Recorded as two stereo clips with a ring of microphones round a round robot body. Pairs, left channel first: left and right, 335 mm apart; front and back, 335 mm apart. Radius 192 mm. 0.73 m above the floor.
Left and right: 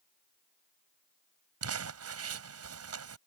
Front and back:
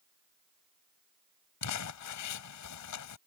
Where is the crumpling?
45° right.